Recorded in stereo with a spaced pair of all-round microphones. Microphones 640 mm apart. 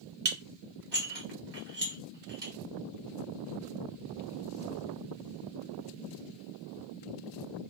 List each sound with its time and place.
0.2 s dishes clattering: 40° right (ahead or behind), 0.8 m